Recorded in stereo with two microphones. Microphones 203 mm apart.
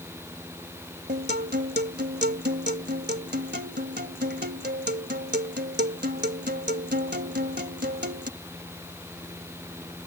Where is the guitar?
55° right (ahead or behind).